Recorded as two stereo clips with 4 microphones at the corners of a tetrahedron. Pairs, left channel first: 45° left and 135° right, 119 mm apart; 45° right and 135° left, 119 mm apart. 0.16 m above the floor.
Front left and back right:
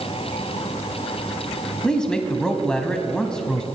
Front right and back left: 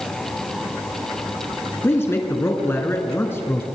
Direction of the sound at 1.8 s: 30° right.